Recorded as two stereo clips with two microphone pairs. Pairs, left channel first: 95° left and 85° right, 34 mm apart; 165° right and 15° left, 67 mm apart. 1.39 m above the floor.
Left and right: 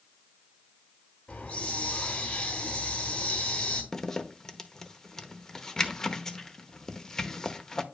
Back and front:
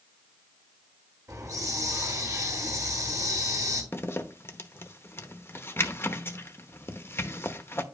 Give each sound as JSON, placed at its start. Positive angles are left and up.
{"t": 1.3, "sound": "a hiss", "azimuth_deg": 40, "distance_m": 2.5}
{"t": 3.9, "sound": "a zipper", "azimuth_deg": 155, "distance_m": 0.8}